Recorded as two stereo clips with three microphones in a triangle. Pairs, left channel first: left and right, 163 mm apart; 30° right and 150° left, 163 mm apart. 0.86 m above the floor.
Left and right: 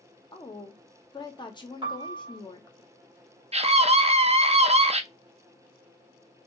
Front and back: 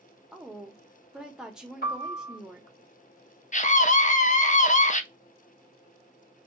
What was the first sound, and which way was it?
A woman speaking, 70° left.